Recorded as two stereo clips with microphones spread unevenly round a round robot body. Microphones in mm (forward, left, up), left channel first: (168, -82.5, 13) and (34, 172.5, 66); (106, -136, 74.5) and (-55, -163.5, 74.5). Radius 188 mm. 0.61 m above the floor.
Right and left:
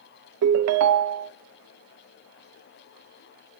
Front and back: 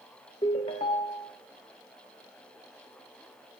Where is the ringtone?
80° left, 0.5 m.